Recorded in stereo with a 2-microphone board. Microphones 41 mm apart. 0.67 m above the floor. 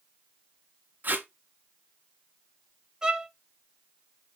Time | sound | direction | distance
1.0 | tape being pulled | 50° right (ahead or behind) | 0.7 m
3.0 | a violin | 20° right (ahead or behind) | 0.5 m